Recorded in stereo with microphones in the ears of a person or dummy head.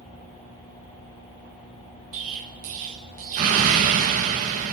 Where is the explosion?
50° right (ahead or behind), 1.4 m.